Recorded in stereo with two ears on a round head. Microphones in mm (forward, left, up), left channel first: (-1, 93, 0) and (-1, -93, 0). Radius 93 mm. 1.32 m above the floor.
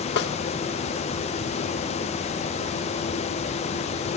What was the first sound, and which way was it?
A snare drum, 60° left (ahead or behind).